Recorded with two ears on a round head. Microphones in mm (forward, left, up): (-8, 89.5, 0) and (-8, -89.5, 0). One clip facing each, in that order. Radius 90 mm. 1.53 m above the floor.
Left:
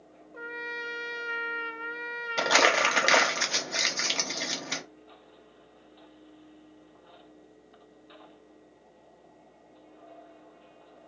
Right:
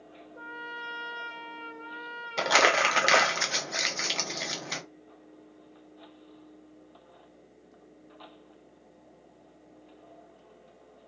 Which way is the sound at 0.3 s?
75° left (ahead or behind).